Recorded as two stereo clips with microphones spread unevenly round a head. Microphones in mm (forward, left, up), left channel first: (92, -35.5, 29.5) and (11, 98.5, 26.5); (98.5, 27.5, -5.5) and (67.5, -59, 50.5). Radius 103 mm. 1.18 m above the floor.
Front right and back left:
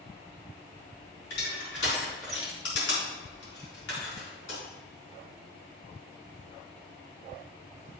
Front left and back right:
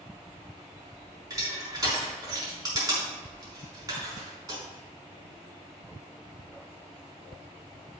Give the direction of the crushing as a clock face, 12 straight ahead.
3 o'clock.